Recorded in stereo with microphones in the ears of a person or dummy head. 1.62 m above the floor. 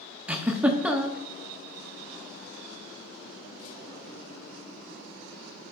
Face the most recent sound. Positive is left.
turn(degrees=-5)  # may be behind; listen again after turning